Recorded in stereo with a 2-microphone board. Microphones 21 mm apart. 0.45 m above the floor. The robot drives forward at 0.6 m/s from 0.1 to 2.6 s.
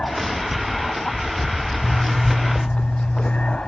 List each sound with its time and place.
0.0 s an aircraft: 65° left (ahead or behind)
1.8 s a zipper: 50° left (ahead or behind)